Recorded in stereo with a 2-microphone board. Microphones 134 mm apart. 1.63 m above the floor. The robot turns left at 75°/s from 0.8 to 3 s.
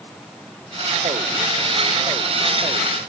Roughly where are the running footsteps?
No running footsteps in this recording.